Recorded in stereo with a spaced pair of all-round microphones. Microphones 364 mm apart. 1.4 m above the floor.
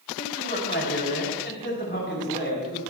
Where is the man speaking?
30° left (ahead or behind), 4 m.